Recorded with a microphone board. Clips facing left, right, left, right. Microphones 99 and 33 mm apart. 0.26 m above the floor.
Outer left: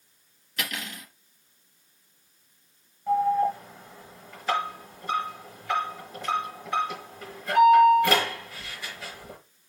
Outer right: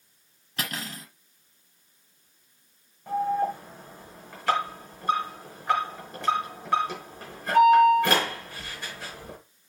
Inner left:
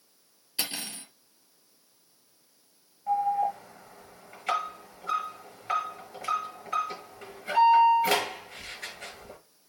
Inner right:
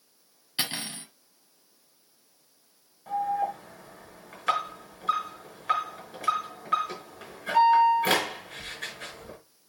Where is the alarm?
70° right (ahead or behind), 5.5 m.